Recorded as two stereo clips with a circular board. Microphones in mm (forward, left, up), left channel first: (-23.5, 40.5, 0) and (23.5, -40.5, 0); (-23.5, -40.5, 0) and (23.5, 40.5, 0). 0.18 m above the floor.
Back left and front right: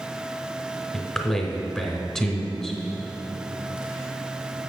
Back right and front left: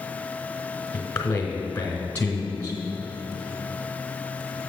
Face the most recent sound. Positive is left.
turn(degrees=-170)